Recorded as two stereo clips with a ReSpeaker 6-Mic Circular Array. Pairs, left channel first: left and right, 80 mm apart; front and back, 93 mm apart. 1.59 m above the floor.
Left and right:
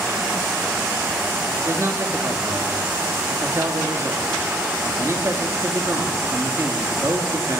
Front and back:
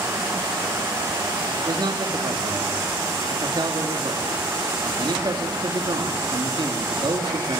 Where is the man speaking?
145° right, 3 m.